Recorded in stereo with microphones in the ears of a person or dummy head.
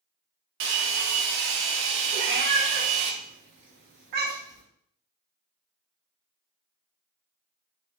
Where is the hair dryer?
55° right (ahead or behind), 0.5 m.